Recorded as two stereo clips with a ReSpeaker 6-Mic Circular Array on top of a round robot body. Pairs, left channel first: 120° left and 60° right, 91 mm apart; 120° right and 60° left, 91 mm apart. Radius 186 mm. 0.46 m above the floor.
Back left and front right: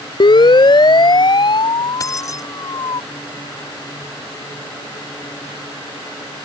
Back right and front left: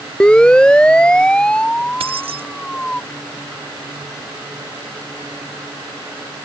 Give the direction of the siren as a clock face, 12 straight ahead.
7 o'clock.